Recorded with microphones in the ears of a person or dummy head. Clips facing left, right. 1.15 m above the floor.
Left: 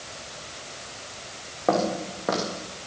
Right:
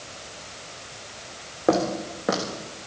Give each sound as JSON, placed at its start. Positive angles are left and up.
{"t": 1.7, "sound": "footsteps", "side_deg": -20, "distance_m": 3.0}